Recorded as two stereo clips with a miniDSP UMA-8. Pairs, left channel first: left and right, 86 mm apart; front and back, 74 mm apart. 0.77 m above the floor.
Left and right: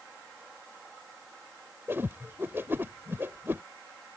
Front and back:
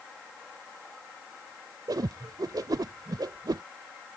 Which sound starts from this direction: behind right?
A whoosh, at 1.9 s.